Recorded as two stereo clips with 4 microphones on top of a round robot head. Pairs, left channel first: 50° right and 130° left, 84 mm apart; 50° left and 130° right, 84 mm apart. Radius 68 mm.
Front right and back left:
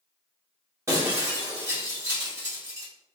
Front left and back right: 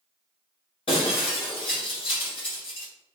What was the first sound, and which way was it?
Breaking glass, 70° left.